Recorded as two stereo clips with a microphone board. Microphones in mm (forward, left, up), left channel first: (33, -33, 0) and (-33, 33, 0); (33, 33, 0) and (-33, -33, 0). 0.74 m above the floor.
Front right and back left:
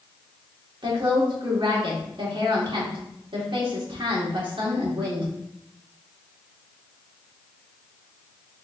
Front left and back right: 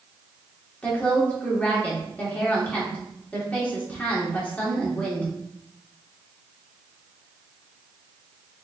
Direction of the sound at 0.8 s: 115° left.